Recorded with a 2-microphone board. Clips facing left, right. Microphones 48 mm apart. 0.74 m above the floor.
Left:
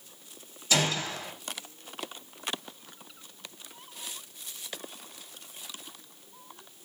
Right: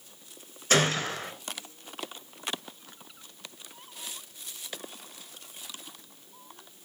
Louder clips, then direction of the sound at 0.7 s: Right 3 dB; 50° right (ahead or behind).